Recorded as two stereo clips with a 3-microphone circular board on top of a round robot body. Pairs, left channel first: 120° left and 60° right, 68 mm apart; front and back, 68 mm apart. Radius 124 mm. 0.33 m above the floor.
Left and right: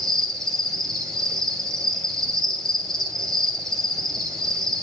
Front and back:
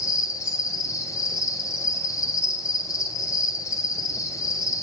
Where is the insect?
40° left, 3 m.